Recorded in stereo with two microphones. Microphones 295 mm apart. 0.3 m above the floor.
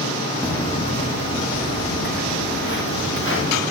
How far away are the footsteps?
About 0.9 m.